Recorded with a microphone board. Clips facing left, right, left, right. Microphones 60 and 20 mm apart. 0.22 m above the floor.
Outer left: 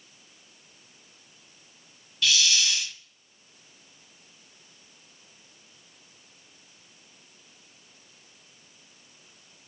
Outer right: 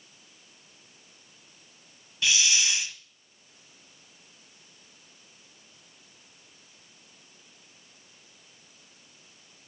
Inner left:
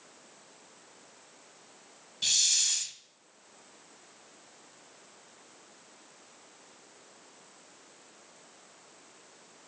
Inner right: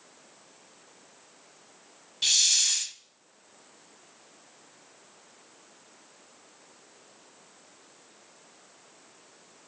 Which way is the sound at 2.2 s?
20° right (ahead or behind).